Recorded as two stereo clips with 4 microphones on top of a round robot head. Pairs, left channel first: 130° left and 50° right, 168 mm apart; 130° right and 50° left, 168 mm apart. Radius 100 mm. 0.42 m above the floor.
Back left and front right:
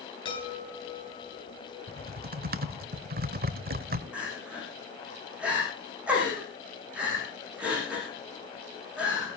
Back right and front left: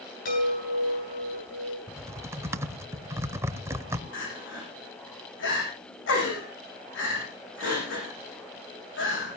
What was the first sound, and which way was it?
A chime, 170° right.